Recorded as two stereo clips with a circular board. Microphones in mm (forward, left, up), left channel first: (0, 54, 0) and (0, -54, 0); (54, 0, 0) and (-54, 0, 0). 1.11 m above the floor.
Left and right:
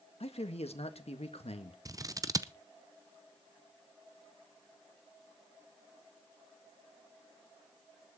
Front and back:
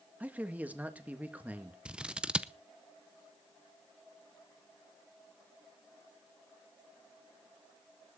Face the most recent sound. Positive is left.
turn(degrees=-105)